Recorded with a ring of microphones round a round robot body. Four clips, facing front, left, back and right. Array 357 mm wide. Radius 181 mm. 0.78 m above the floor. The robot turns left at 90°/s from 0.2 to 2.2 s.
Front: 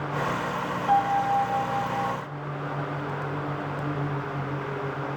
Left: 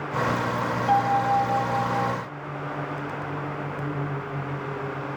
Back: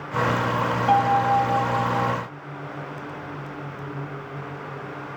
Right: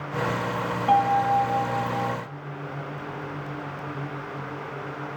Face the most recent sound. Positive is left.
turn(degrees=90)